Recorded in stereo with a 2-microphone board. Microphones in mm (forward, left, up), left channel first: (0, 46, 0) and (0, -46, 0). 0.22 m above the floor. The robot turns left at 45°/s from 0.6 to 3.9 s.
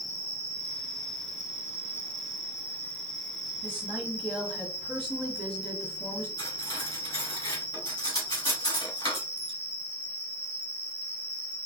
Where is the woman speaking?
15° left (ahead or behind), 1.4 m; by 6.3 s 10° left (ahead or behind), 1.4 m.